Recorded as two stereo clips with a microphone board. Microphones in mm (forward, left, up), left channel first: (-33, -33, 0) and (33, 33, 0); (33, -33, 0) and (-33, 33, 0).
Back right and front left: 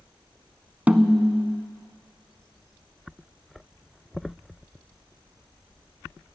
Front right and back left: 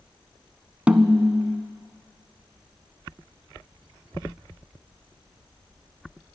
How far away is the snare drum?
About 0.5 m.